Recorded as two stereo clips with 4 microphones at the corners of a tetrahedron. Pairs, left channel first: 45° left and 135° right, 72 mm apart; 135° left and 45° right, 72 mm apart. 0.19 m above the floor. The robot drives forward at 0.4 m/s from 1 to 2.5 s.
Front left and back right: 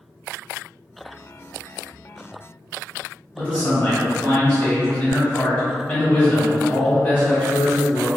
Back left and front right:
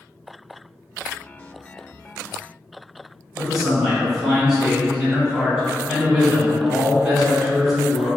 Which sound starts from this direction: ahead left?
A man speaking, at 3.4 s.